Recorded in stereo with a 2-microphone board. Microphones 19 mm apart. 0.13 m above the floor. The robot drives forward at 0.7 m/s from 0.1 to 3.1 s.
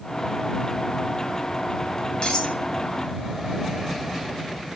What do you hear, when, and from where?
2.2 s cutlery clinking: 55° left (ahead or behind), 1.4 m